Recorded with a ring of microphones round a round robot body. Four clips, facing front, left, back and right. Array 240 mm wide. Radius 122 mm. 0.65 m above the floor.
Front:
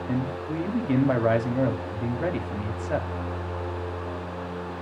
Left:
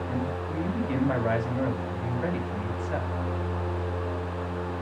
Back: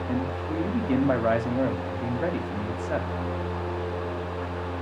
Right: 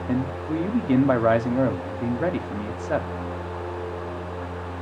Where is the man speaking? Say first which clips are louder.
Right 9 dB, front 1 dB; 85° right, 1.7 m.